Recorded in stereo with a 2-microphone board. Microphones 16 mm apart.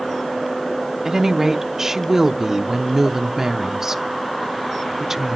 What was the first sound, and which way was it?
A woman speaking, 35° right (ahead or behind).